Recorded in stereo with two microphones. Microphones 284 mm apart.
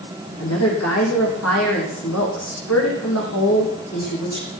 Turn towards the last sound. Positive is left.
turn(degrees=70)  # may be behind; listen again after turning